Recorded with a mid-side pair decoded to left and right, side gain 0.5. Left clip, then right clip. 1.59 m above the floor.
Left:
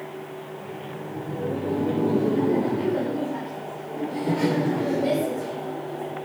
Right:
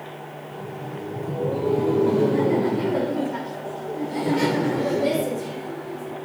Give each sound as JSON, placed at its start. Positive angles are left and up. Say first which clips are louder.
{"t": 0.5, "sound": "laughter", "louder": "right 1 dB", "azimuth_deg": -60, "distance_m": 7.5}